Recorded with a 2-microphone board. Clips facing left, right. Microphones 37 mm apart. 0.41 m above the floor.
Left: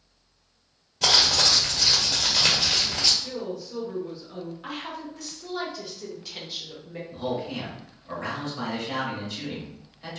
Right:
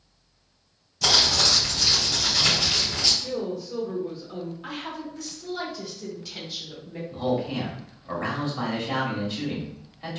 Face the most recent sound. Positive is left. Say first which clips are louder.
# right 4 dB
turn(degrees=-25)  # may be behind; listen again after turning